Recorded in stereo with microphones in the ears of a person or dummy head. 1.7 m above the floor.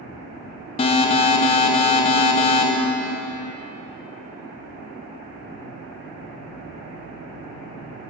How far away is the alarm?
About 0.6 m.